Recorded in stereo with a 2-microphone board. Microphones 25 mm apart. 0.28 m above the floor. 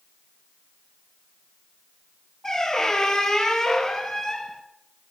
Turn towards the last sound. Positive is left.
turn(degrees=20)  # may be behind; listen again after turning